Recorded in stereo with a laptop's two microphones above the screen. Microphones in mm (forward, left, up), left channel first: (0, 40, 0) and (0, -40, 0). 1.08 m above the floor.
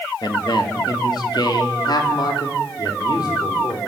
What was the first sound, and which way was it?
A man speaking, 65° left (ahead or behind).